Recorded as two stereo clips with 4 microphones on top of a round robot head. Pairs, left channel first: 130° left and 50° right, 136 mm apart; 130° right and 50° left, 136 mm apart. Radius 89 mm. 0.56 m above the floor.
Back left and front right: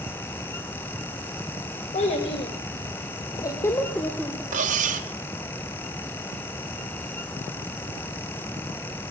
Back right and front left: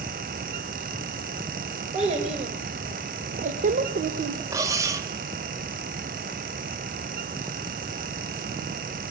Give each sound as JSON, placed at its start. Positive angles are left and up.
{"t": 1.9, "sound": "a child speaking", "azimuth_deg": 90, "distance_m": 2.5}
{"t": 4.5, "sound": "cutlery clinking", "azimuth_deg": -20, "distance_m": 1.0}